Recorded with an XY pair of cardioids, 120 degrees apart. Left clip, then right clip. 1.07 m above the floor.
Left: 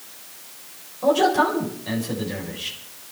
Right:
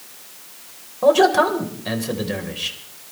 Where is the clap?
No clap in this recording.